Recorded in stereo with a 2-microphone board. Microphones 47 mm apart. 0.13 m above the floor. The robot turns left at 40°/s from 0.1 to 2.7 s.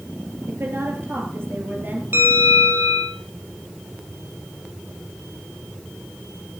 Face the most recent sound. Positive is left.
turn(degrees=-65)  # may be behind; listen again after turning